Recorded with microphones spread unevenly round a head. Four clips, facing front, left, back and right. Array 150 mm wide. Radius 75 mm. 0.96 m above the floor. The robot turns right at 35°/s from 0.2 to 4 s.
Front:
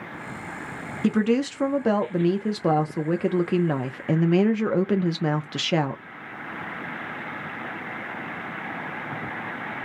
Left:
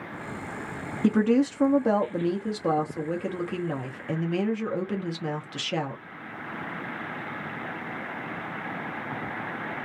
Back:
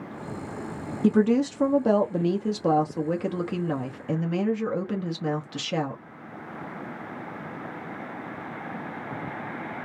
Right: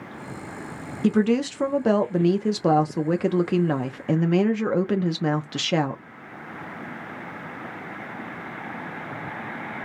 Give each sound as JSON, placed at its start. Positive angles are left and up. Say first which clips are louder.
{"t": 1.0, "sound": "a woman speaking", "louder": "right 1 dB, back 1 dB", "azimuth_deg": 180, "distance_m": 0.6}